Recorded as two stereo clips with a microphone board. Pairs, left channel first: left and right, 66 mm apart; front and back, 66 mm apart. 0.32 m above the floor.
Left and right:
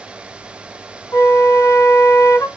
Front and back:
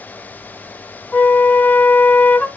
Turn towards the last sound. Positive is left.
turn(degrees=60)